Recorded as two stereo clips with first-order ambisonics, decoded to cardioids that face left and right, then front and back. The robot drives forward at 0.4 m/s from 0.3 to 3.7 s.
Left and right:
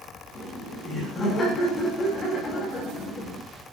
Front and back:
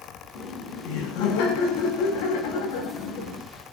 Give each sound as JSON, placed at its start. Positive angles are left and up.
{"t": 0.3, "sound": "laughter", "azimuth_deg": 15, "distance_m": 9.0}